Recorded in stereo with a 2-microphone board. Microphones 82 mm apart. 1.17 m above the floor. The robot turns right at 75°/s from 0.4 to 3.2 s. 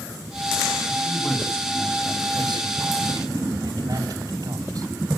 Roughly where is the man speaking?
Behind left.